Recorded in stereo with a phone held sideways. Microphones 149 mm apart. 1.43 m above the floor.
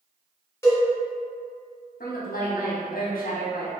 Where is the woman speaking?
80° left, 0.7 m.